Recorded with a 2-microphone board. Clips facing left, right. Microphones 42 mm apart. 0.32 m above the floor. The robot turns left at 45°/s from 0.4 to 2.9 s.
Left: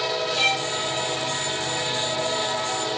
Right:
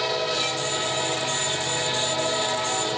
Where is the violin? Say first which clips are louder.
Left 4 dB; 45° left (ahead or behind); by 0.7 s 55° left (ahead or behind).